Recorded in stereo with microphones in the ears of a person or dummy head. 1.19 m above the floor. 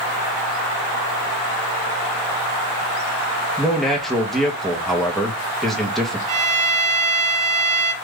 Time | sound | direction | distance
3.6 | a man speaking | centre (ahead or behind) | 0.8 m
6.3 | a violin | 40° right (ahead or behind) | 1.0 m